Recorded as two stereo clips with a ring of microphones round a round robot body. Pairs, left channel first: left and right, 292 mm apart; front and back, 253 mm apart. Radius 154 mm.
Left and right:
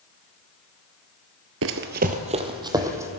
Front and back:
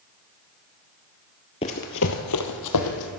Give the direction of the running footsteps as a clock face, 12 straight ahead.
2 o'clock.